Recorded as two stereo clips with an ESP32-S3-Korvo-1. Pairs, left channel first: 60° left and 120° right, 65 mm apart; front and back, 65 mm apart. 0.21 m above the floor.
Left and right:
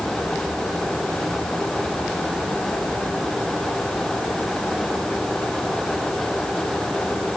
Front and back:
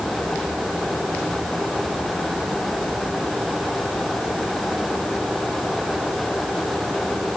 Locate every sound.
Only background noise.